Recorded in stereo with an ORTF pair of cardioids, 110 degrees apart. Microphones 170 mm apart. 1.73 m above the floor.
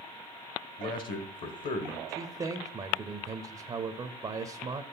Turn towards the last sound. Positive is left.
turn(degrees=-25)